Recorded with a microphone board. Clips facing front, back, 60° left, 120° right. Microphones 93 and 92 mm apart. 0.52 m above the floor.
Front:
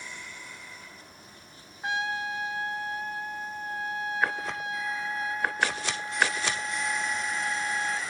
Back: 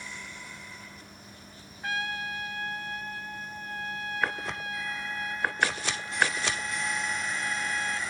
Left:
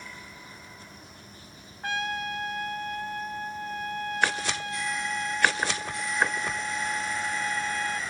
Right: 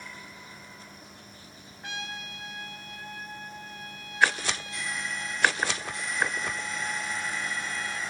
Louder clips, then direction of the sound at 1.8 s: Front 3 dB, left 9 dB; 60° left.